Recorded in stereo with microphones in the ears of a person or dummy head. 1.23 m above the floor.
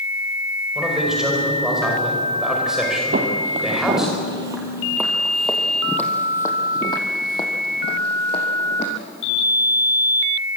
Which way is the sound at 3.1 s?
50° right (ahead or behind).